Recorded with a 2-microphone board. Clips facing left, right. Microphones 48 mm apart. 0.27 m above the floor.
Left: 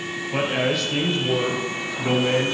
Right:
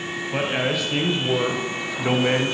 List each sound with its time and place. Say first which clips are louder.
0.3 s a man speaking: left 1 dB; 5° right (ahead or behind), 1.6 m; by 2.5 s 30° right (ahead or behind), 1.6 m